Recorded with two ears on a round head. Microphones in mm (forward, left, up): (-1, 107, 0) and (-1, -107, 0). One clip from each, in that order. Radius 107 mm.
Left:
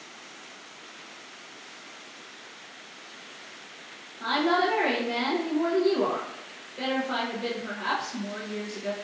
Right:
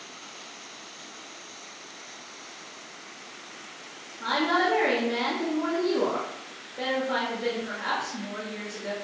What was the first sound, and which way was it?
A woman speaking, 25° left (ahead or behind).